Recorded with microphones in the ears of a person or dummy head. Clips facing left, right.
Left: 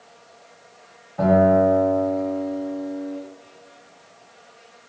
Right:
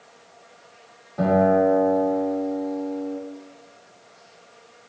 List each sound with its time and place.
1.2 s a guitar: 55° right (ahead or behind), 2.0 m